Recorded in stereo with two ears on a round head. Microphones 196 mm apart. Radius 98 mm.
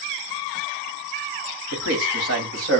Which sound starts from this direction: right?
A man speaking, at 1.7 s.